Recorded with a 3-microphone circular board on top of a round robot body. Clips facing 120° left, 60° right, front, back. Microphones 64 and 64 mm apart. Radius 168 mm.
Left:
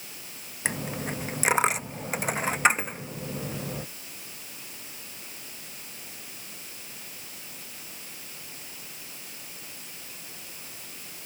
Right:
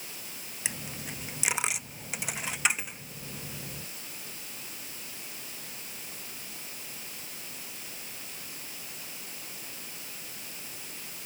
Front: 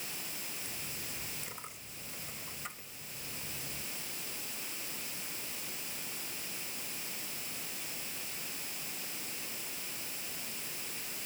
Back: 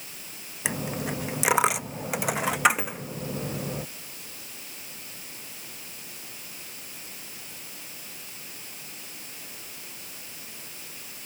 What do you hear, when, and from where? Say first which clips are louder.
0.7 s a dropped coin: left 9 dB, back 15 dB; 175° left